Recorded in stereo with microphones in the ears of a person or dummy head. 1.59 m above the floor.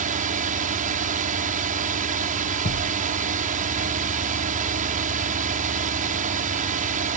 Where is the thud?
50° left (ahead or behind).